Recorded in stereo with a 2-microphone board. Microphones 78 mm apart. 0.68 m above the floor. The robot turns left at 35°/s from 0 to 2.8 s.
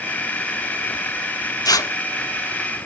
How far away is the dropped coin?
I don't hear a dropped coin.